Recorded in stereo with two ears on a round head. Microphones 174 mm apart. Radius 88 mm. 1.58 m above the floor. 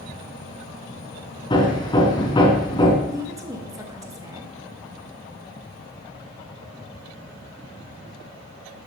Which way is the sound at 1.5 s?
25° left (ahead or behind).